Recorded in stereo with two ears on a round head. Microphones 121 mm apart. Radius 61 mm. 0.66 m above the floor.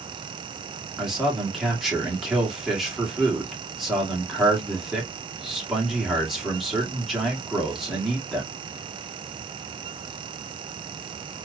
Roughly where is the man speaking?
Centre.